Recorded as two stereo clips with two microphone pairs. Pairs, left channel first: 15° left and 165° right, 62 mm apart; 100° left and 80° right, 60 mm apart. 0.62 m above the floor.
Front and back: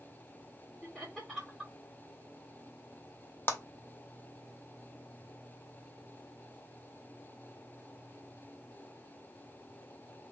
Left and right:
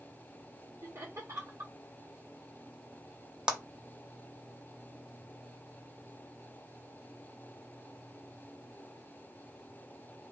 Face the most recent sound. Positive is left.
turn(degrees=-10)